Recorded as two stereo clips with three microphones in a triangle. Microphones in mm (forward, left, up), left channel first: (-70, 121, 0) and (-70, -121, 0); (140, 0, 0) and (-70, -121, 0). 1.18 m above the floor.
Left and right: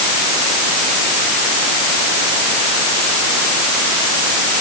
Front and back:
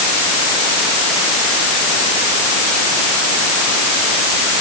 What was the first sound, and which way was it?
Only background noise.